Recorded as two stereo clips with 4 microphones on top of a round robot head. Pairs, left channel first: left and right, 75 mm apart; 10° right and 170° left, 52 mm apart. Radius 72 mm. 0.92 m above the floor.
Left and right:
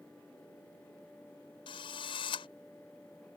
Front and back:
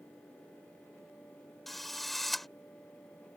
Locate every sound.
1.7 s a drill: 80° left